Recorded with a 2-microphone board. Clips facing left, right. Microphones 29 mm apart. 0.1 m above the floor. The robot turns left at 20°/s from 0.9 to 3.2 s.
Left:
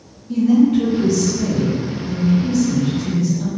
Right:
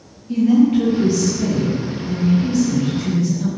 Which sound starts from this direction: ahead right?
A woman speaking, at 0.3 s.